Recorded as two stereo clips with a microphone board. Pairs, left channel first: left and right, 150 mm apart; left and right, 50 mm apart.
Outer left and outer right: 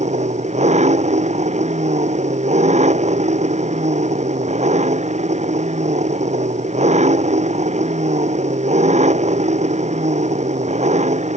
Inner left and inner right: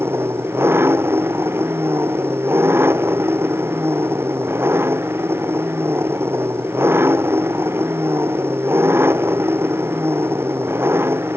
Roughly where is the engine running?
Right.